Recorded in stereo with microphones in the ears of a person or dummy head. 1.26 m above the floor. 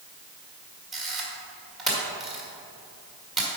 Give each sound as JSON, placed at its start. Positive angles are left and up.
{"t": 0.9, "sound": "a camera shutter", "side_deg": 0, "distance_m": 1.9}